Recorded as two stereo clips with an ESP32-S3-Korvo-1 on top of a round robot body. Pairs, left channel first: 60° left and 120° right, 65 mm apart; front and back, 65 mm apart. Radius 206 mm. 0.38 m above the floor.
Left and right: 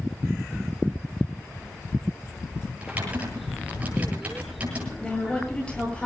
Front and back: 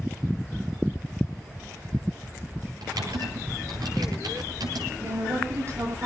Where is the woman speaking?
135° left, 9.5 m.